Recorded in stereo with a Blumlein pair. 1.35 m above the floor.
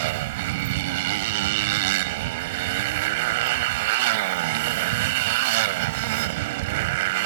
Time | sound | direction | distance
0.0 | a motorcycle | 50° right | ?